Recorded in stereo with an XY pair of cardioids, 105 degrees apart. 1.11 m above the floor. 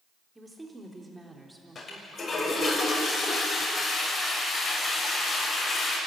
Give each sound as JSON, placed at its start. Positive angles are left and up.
{"t": 0.3, "sound": "a woman speaking", "azimuth_deg": -15, "distance_m": 4.0}
{"t": 1.8, "sound": "a toilet flushing", "azimuth_deg": 40, "distance_m": 6.5}